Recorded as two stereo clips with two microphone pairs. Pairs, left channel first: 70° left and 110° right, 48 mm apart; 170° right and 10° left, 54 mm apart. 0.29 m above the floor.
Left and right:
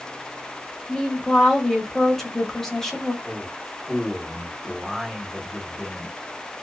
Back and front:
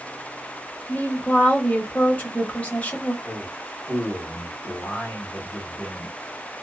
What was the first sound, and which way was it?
A woman speaking, 145° left.